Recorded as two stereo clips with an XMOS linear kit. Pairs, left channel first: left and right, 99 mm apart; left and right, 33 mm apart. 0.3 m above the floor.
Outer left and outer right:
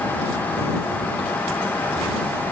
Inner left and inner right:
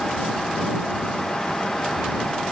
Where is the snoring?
I don't hear snoring.